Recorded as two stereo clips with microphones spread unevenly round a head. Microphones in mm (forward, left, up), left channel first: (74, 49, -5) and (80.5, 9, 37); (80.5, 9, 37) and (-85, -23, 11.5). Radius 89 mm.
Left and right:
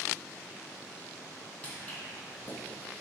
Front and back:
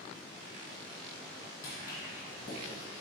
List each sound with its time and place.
1.6 s footsteps: 30° right, 1.7 m